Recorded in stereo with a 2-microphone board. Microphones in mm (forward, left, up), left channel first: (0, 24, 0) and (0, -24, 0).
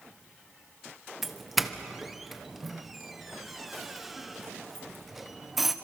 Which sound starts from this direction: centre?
A doorbell, at 1.2 s.